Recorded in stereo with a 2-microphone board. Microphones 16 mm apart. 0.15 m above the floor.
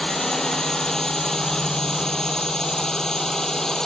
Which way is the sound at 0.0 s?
30° left (ahead or behind).